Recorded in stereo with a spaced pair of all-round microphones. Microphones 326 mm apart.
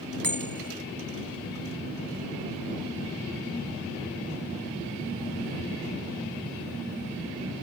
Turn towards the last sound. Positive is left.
turn(degrees=-85)